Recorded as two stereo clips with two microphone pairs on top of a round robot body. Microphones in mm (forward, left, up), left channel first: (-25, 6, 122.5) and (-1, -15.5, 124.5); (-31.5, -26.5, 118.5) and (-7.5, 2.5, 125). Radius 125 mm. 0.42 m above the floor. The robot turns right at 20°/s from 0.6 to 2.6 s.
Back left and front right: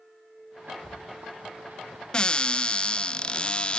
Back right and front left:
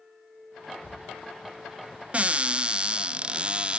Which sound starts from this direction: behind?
A cupboard door, at 0.8 s.